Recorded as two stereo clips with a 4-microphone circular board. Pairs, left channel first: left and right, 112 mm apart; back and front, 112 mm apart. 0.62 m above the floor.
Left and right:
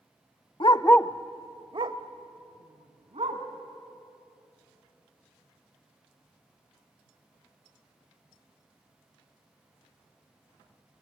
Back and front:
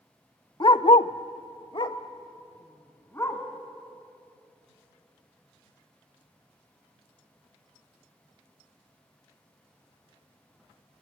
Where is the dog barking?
130° left, 0.6 m; by 3.4 s 115° right, 2.5 m.